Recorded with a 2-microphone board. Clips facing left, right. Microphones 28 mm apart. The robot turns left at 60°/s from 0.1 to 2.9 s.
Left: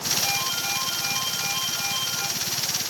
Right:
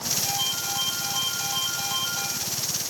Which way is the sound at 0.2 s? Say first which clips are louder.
Left 2 dB; 45° left.